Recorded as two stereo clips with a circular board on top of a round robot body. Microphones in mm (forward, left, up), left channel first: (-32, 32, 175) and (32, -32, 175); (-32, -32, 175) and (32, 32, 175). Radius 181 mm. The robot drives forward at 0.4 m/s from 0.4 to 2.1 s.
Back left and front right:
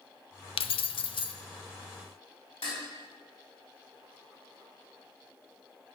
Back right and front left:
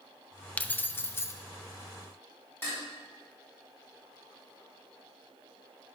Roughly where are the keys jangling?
Behind left.